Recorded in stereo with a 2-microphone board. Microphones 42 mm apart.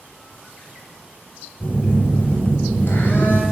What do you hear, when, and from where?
1.6 s a phone buzzing: 50° left (ahead or behind), 2 m